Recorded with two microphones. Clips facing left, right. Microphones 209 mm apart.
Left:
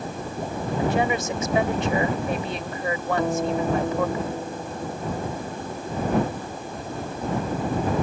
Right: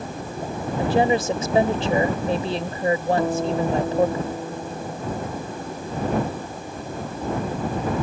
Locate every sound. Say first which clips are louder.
0.8 s a woman speaking: right 4 dB; 35° right (ahead or behind)
3.2 s a guitar: right 1 dB; centre (ahead or behind)